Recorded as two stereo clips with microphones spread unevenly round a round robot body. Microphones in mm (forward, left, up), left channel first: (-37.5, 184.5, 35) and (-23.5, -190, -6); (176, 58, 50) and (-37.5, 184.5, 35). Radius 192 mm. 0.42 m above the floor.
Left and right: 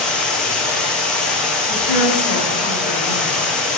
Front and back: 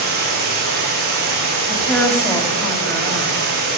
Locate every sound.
0.0 s running water: straight behind, 3.5 m
1.7 s a woman speaking: 50° left, 2.5 m